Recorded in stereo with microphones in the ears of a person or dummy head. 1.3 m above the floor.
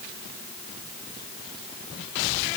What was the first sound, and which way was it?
Only background noise.